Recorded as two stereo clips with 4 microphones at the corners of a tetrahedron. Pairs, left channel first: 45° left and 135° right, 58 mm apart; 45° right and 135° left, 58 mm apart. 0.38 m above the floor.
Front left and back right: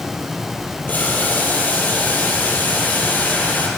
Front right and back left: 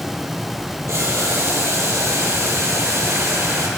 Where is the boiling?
100° left, 3.5 m.